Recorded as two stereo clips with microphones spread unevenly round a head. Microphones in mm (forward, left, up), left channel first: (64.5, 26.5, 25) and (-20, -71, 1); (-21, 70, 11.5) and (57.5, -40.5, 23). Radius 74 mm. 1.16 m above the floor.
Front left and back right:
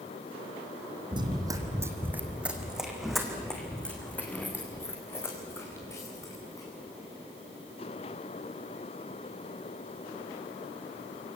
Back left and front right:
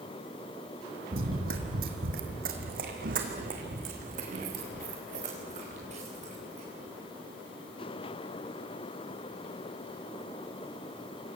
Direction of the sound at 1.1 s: 75° right.